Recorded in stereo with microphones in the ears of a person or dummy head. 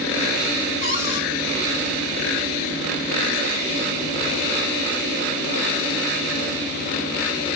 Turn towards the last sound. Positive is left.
turn(degrees=75)  # may be behind; listen again after turning